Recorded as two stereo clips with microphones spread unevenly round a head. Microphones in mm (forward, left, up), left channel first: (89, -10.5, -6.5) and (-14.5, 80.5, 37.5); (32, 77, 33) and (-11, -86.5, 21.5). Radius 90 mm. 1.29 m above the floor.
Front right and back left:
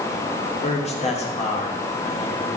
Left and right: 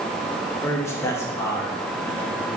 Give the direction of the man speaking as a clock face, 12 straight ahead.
12 o'clock.